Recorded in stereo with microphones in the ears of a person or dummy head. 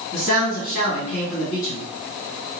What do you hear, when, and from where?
0.1 s a man speaking: 80° left, 2.0 m